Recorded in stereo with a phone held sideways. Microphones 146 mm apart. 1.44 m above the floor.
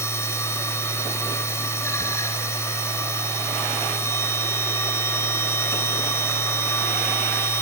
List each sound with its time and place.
0.0 s a machine running: 20° left (ahead or behind), 3 m